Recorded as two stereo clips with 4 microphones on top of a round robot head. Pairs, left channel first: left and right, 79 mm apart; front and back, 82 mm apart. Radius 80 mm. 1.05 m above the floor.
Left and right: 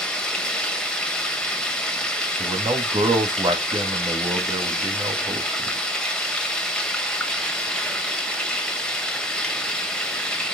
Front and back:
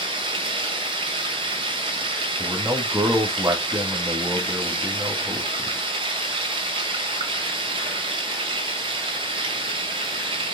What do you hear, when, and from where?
0.0 s running water: 170° left, 1.6 m
2.4 s a man speaking: 115° right, 1.8 m